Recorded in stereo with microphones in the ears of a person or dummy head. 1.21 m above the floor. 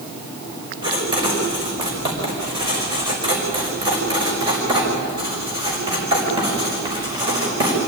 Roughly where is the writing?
Centre.